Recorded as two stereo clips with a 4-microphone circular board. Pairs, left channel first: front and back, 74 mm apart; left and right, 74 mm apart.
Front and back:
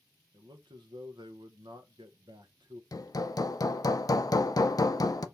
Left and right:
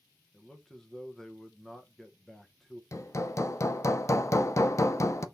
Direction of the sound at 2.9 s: 40° left.